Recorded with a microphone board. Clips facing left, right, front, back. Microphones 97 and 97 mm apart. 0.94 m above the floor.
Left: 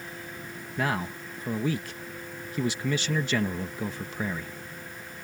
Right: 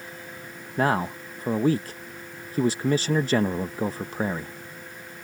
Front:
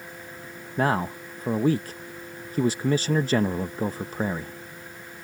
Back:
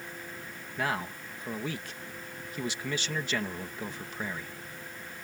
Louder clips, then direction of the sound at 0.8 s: Right 6 dB, front 8 dB; 45° right.